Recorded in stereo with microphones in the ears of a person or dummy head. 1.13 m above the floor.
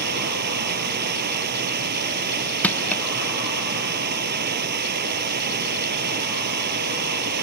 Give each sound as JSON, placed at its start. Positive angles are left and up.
{"t": 0.0, "sound": "running water", "side_deg": -50}
{"t": 2.6, "sound": "crushing", "side_deg": 10}